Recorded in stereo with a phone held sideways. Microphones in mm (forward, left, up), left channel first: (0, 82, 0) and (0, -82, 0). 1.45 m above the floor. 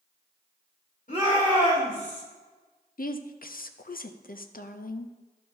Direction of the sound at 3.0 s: 60° left (ahead or behind).